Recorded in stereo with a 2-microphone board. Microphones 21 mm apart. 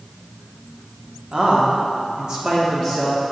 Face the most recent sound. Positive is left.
turn(degrees=-10)  # may be behind; listen again after turning